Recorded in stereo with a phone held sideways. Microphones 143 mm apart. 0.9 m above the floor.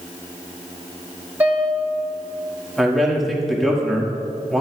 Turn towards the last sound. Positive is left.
turn(degrees=0)  # may be behind; listen again after turning